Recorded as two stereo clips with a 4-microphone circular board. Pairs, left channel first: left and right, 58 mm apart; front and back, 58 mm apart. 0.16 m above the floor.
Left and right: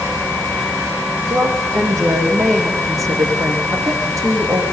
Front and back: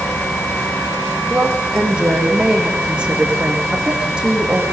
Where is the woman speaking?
105° right, 6.5 m.